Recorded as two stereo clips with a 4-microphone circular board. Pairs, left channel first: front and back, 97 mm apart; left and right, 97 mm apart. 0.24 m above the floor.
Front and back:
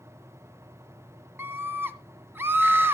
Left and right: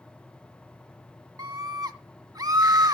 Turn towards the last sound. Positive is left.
turn(degrees=-120)